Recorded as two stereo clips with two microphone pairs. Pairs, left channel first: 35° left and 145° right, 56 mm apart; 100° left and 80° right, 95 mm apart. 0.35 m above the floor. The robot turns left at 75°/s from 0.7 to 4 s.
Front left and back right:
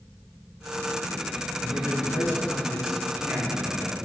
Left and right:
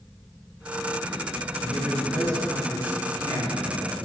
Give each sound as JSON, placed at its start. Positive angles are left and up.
{"t": 1.6, "sound": "a man speaking", "azimuth_deg": 30, "distance_m": 3.5}